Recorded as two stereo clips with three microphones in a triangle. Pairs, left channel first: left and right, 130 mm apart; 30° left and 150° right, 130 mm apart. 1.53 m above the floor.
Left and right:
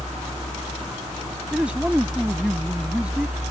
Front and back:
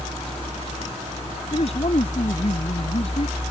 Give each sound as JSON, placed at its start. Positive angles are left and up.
{"t": 1.5, "sound": "a man speaking", "azimuth_deg": -10}